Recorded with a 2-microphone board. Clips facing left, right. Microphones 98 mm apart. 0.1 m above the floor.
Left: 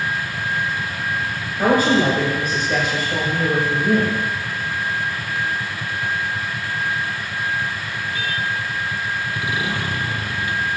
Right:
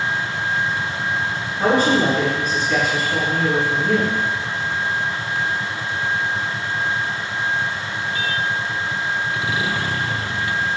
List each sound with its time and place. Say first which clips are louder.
1.6 s a woman speaking: left 1 dB; 20° left (ahead or behind), 1.6 m